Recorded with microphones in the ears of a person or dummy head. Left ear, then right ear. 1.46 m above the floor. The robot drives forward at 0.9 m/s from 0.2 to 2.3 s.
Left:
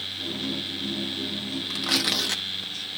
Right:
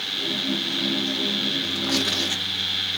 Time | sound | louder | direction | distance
1.7 | tearing paper | right 1 dB | 70° left (ahead or behind) | 1.8 m